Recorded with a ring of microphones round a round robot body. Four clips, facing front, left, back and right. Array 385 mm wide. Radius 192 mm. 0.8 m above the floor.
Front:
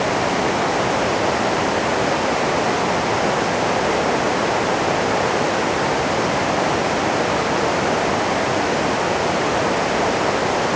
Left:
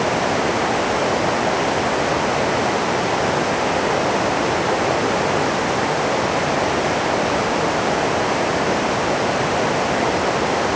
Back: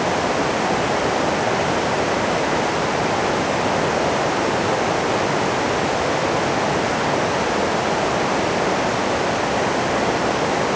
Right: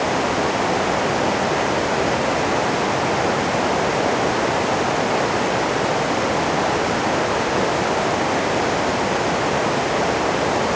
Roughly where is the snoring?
No snoring in this recording.